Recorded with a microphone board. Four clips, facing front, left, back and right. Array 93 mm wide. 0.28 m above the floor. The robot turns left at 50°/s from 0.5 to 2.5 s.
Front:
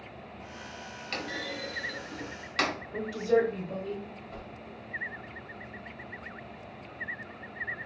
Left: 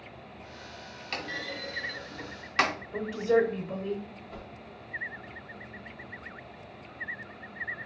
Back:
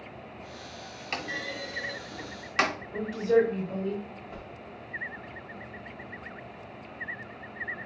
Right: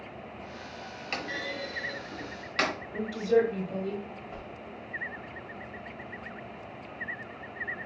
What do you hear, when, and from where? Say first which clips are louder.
1.1 s a clunk: right 1 dB, back 2 dB; 135° right, 1.2 m; by 2.8 s 155° left, 1.2 m
2.9 s a woman speaking: even, back 2 dB; 105° left, 1.1 m
4.3 s a whoosh: right 2 dB, back 1 dB; 125° right, 1.0 m